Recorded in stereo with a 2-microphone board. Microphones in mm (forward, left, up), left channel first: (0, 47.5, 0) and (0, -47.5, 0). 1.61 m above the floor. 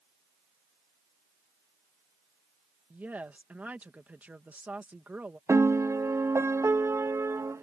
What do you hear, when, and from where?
2.9 s a woman speaking: 20° right (ahead or behind)
5.5 s a piano: 30° right (ahead or behind)